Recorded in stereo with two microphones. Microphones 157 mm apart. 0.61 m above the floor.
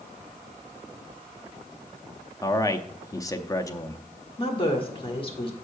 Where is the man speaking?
20° left (ahead or behind), 0.6 m.